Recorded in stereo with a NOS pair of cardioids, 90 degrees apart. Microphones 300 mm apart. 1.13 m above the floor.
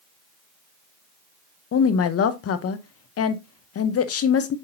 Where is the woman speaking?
55° left, 1.0 m.